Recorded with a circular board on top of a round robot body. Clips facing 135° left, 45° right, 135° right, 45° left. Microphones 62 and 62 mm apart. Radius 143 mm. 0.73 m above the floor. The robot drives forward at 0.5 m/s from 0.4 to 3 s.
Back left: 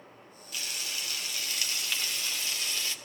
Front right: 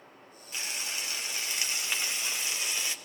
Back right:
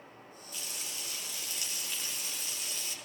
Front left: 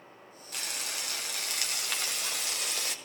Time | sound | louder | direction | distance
0.5 | frying | front right 1 dB, front left 6 dB | 20° left | 4 m